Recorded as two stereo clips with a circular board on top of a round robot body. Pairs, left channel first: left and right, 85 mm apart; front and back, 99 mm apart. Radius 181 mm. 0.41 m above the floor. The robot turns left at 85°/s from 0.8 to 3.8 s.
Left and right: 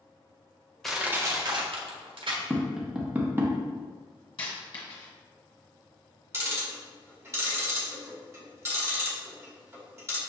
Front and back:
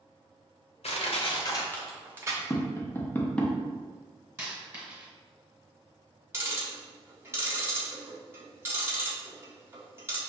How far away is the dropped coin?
About 1.5 m.